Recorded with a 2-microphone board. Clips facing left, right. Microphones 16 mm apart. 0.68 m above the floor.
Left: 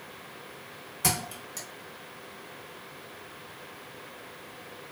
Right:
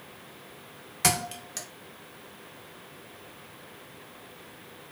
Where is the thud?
25° right (ahead or behind), 0.7 m.